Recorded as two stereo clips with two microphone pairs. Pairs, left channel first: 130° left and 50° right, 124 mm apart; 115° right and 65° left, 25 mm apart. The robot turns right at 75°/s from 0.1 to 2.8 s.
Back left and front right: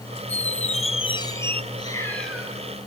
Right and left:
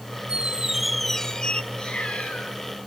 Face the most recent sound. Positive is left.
turn(degrees=-105)